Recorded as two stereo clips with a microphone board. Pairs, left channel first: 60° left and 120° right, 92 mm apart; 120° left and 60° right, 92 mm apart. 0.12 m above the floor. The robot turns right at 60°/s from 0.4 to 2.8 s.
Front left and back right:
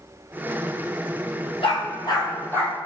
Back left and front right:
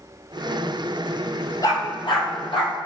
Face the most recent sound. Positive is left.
turn(degrees=140)